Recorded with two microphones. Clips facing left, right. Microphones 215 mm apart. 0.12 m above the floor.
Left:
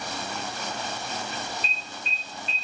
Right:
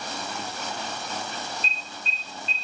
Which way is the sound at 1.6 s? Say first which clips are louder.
Even; 30° right (ahead or behind).